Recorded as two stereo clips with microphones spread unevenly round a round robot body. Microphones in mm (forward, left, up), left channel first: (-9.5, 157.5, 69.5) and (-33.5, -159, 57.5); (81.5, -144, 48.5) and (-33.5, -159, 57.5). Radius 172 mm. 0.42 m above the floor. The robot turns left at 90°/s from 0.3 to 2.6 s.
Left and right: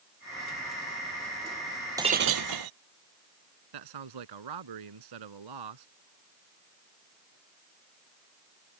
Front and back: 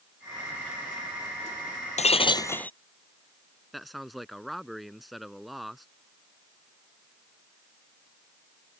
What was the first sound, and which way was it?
Breaking glass, 15° right.